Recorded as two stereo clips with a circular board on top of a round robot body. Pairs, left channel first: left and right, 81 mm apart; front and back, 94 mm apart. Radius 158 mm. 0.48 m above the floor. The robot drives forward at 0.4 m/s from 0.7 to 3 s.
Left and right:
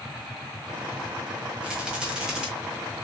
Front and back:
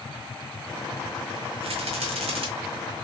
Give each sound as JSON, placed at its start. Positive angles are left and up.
{"t": 1.6, "sound": "a rattle", "azimuth_deg": -170, "distance_m": 0.9}